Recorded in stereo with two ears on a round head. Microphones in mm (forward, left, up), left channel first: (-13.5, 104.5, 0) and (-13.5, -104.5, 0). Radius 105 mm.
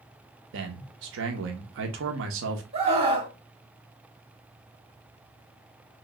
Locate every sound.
0.5 s a man speaking: 55° right (ahead or behind), 0.7 m
2.7 s a scream: 25° right (ahead or behind), 2.5 m